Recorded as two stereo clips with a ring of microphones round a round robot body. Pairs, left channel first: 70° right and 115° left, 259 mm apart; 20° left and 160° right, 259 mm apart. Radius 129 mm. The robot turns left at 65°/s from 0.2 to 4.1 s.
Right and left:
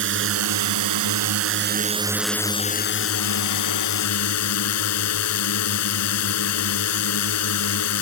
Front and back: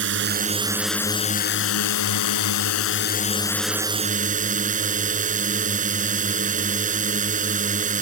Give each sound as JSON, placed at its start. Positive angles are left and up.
{"t": 0.0, "sound": "a drone", "azimuth_deg": 155}